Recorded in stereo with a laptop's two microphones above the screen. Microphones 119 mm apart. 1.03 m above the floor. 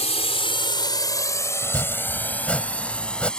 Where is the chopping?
10° left (ahead or behind).